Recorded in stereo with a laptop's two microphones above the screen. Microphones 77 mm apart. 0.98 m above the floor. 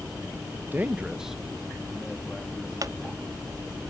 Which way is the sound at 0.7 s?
25° right (ahead or behind).